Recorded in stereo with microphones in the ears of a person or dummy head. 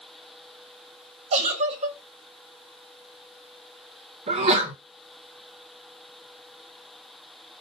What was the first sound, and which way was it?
A giggle, 35° right (ahead or behind).